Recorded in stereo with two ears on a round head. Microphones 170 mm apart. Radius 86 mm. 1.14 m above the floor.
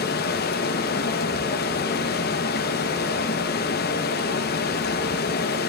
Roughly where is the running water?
Left.